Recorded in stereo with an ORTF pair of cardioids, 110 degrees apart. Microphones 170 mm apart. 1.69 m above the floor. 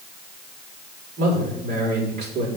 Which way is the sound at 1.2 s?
65° right.